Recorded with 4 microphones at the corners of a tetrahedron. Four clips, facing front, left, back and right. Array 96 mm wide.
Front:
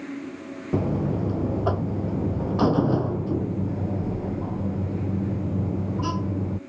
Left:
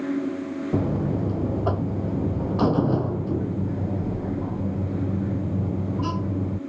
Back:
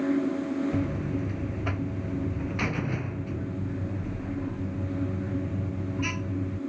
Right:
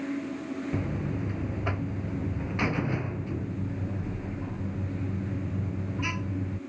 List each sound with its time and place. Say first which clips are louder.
0.7 s a buzzer: left 11 dB, front 4 dB; 40° left